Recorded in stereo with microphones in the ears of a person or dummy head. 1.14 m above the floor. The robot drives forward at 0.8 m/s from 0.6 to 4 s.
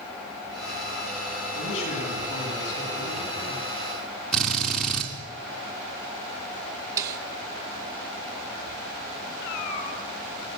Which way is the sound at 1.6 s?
70° left (ahead or behind).